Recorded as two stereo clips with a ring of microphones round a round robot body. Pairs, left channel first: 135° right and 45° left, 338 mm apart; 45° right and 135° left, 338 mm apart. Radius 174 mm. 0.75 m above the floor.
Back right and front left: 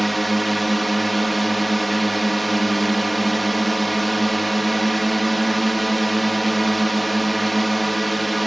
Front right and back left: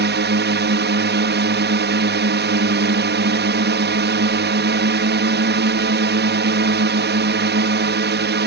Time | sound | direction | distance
0.0 | a drone | 135° left | ?